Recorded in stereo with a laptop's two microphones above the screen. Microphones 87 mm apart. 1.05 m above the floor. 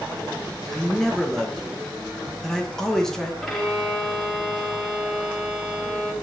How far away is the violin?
About 1.4 m.